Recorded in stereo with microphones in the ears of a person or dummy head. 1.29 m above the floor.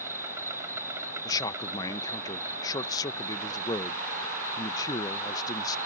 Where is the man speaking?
20° left (ahead or behind).